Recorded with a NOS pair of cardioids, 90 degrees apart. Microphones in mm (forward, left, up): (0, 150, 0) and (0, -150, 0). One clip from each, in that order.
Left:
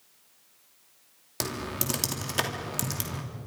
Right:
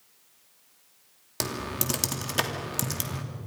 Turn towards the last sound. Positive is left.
turn(degrees=-5)